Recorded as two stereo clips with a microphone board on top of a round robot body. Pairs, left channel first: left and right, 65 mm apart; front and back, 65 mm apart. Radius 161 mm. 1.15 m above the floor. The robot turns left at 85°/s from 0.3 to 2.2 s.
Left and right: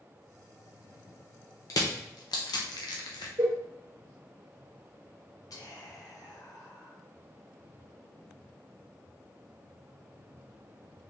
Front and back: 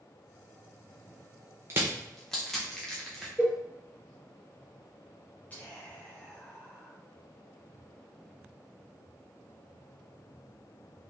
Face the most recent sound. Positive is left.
turn(degrees=65)